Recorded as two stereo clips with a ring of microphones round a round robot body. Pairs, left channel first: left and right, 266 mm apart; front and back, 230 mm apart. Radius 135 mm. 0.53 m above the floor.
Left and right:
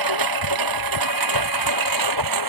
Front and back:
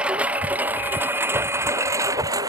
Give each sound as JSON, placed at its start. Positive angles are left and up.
{"t": 0.0, "sound": "a lawn mower", "azimuth_deg": -95}